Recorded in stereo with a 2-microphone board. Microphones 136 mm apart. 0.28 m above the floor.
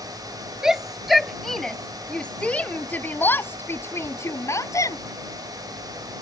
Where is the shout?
5° right (ahead or behind); by 5.0 s 25° left (ahead or behind).